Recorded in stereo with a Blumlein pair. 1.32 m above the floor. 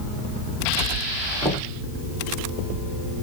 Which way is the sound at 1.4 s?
20° right.